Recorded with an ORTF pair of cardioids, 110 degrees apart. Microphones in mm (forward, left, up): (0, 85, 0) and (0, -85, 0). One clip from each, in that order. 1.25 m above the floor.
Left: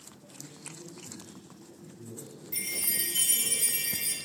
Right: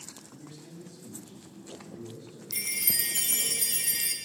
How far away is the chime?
About 1.2 m.